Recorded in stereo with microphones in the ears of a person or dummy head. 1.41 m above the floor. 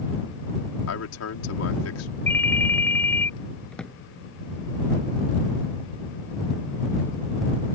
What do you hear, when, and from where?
0.9 s a man speaking: 85° left
2.3 s a ringtone: 10° left (ahead or behind)
3.7 s a drawer: 5° left (ahead or behind)